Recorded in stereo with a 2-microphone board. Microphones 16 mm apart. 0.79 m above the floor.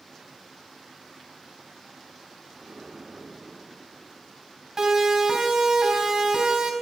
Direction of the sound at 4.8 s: 30° right (ahead or behind).